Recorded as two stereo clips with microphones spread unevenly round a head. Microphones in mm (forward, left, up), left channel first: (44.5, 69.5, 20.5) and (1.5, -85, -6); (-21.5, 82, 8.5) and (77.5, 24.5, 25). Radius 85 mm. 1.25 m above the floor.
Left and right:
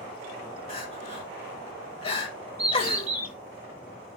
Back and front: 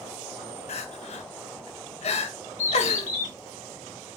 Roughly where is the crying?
Behind left.